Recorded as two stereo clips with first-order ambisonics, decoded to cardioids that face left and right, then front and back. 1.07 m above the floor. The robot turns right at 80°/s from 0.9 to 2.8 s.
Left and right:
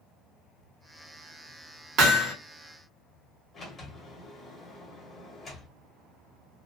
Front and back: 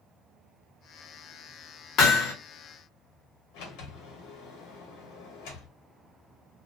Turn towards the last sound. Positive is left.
turn(degrees=15)